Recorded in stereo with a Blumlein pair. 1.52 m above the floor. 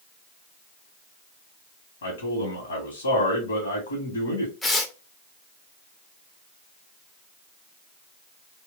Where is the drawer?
I don't hear a drawer.